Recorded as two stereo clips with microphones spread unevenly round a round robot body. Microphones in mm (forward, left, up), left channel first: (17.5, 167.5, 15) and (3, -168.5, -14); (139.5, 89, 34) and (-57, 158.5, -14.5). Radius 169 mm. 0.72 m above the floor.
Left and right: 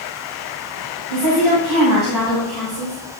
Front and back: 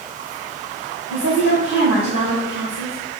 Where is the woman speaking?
65° right, 3.5 m.